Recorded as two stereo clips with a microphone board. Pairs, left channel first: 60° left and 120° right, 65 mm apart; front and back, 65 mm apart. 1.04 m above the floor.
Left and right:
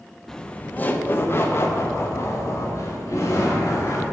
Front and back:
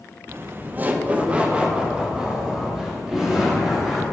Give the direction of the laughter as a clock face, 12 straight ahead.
7 o'clock.